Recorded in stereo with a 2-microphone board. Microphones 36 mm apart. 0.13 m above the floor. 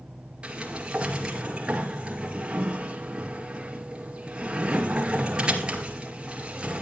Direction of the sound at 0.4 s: 30° right (ahead or behind).